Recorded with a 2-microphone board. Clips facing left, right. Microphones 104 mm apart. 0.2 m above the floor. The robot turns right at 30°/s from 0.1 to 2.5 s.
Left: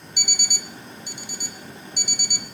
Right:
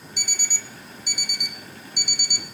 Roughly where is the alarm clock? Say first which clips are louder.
Left 4 dB; ahead.